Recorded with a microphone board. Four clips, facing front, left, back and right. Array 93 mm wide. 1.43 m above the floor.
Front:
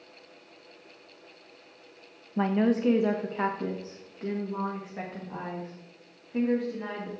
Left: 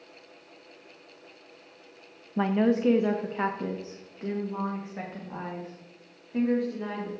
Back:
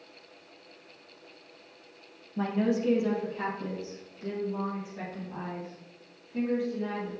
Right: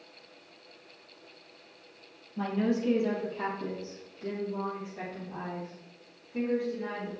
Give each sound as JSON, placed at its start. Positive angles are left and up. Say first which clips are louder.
{"t": 2.4, "sound": "a woman speaking", "louder": "left 5 dB, front 3 dB", "azimuth_deg": 50, "distance_m": 0.6}